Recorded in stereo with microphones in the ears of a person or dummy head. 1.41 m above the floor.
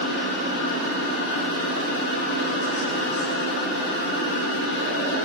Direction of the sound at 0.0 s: 70° left (ahead or behind).